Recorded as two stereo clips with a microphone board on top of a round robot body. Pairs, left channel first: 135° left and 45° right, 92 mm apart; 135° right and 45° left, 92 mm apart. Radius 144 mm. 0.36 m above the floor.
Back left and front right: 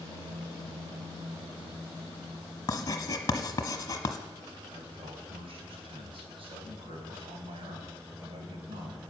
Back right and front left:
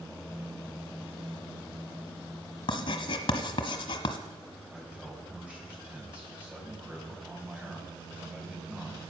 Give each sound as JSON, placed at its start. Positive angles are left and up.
{"t": 2.7, "sound": "writing", "azimuth_deg": -170, "distance_m": 1.1}
{"t": 4.7, "sound": "a man speaking", "azimuth_deg": -30, "distance_m": 3.5}